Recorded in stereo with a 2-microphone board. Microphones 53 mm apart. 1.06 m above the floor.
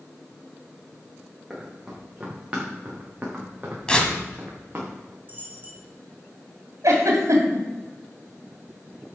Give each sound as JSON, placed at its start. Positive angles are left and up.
{"t": 1.5, "sound": "running footsteps", "side_deg": -15, "distance_m": 5.0}
{"t": 3.9, "sound": "tearing paper", "side_deg": 15, "distance_m": 1.7}
{"t": 5.3, "sound": "a dropped coin", "side_deg": -30, "distance_m": 3.5}
{"t": 6.8, "sound": "a giggle", "side_deg": -70, "distance_m": 3.0}